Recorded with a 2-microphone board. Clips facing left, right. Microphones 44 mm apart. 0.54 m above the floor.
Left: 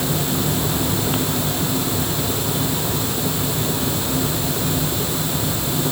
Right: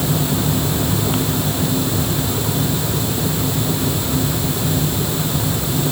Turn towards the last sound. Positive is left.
No sound to turn to.